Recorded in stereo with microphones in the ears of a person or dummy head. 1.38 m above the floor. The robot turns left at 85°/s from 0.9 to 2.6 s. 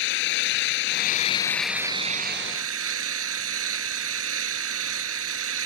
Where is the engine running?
65° left; by 5.7 s 80° right.